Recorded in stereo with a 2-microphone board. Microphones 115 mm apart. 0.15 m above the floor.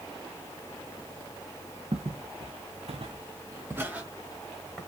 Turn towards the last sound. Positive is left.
turn(degrees=0)  # may be behind; listen again after turning